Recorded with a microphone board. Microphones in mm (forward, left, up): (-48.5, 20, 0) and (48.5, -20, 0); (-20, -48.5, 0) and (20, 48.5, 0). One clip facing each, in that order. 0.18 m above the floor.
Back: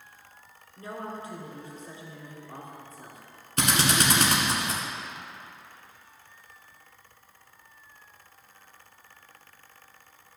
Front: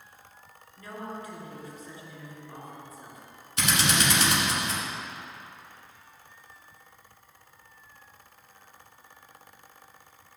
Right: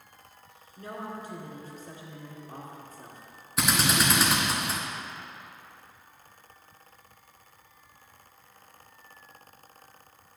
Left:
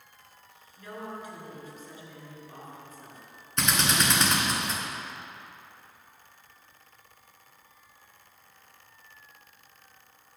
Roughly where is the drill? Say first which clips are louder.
Back 2 dB, right 1 dB; behind.